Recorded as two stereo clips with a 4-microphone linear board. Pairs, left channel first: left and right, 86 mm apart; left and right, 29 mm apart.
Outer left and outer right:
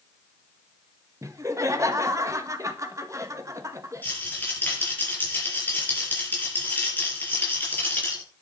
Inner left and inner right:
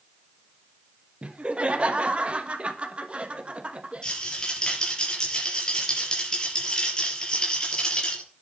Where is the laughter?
35° right (ahead or behind), 1.6 m.